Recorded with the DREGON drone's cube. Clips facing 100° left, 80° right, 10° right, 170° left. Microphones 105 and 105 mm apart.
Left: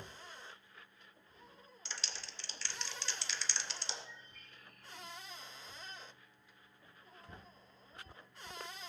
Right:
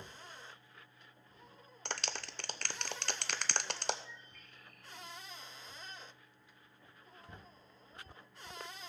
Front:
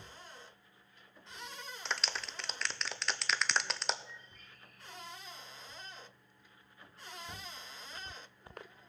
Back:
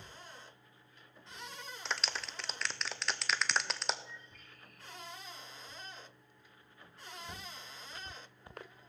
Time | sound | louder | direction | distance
1.9 | a clap | right 8 dB, even | 100° right | 0.7 m
4.0 | a bird | right 1 dB, back 1 dB | 165° left | 5 m